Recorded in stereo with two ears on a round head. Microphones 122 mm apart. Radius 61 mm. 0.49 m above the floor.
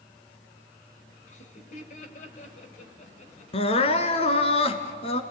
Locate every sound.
1.3 s laughter: 50° left (ahead or behind), 2.5 m
3.5 s crying: 40° left (ahead or behind), 1.4 m